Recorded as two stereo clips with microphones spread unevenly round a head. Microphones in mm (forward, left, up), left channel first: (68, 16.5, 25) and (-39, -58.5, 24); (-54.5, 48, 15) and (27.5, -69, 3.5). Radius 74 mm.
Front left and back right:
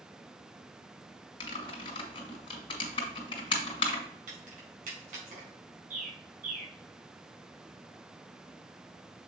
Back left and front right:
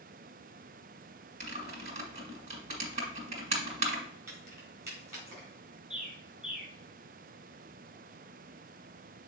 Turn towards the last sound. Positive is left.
turn(degrees=-135)